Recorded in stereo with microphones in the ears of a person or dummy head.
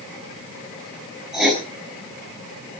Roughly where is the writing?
Centre.